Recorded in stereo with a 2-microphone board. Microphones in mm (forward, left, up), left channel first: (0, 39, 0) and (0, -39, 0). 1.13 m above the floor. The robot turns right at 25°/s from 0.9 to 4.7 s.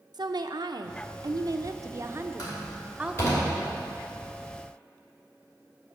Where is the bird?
I don't hear a bird.